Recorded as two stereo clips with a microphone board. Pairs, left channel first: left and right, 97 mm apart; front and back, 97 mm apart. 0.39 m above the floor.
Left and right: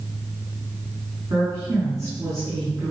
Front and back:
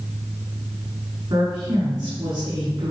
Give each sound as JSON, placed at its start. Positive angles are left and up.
{"t": 1.3, "sound": "a woman speaking", "azimuth_deg": -140, "distance_m": 4.0}